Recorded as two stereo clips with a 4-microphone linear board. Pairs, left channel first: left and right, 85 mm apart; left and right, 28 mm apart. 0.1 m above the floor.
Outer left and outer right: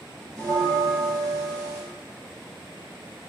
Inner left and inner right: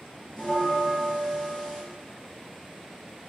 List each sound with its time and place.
0.4 s a bell: 10° left (ahead or behind), 2.0 m